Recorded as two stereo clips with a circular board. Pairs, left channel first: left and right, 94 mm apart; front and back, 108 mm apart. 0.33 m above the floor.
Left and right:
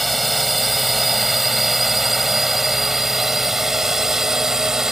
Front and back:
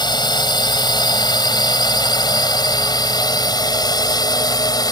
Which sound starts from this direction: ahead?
A drone, at 0.0 s.